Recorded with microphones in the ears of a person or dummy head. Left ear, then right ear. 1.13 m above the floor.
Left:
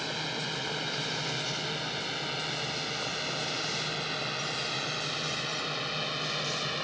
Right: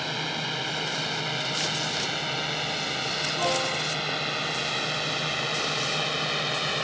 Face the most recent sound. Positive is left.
turn(degrees=-15)  # may be behind; listen again after turning